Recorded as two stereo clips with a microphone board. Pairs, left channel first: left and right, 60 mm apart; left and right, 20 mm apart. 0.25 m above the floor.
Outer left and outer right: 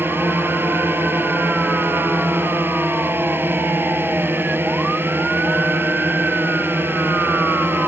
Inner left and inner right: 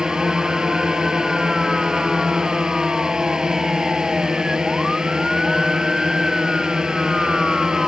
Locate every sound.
0.0 s a drone: 35° right (ahead or behind)